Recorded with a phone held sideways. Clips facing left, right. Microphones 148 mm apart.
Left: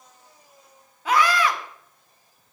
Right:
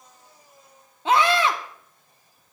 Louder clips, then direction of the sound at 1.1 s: Right 1 dB; 25° right (ahead or behind).